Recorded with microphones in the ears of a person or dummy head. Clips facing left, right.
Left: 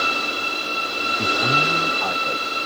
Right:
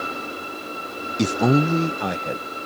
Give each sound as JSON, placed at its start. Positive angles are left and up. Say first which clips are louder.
{"t": 1.2, "sound": "a man speaking", "louder": "right 7 dB", "side_deg": -75}